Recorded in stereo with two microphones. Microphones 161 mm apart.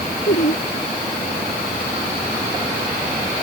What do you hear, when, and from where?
0.3 s laughter: 90° left